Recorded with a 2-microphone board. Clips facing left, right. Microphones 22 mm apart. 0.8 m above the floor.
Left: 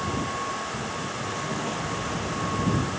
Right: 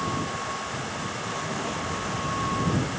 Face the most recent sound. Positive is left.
turn(degrees=5)  # may be behind; listen again after turning